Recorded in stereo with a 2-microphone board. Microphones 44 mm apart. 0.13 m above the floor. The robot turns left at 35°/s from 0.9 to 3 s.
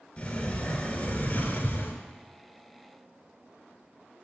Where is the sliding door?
130° left, 1.1 m; by 2.0 s 95° left, 1.1 m.